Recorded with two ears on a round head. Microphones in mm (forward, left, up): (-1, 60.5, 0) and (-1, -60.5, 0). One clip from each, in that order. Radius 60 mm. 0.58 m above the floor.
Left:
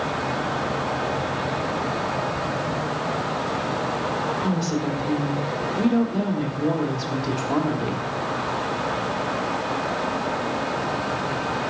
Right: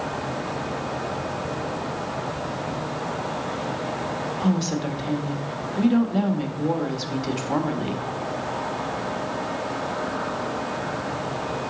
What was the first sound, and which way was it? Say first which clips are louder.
A woman speaking: left 1 dB; 55° right (ahead or behind).